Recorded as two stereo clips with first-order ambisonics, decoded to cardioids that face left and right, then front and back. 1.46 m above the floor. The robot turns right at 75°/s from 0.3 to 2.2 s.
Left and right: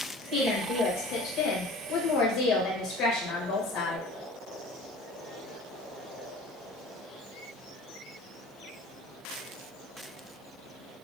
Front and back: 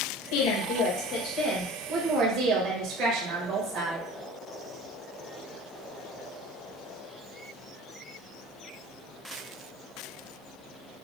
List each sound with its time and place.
0.3 s a woman speaking: 15° right, 1.6 m; by 4.1 s 130° left, 1.6 m